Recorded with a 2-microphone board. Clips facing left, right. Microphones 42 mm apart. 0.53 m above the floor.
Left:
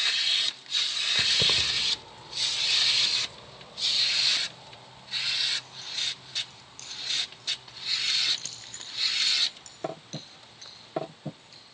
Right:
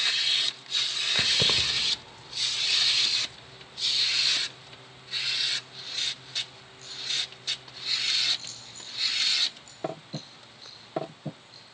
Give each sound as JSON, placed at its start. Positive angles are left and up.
{"t": 1.1, "sound": "keys jangling", "side_deg": -15, "distance_m": 1.1}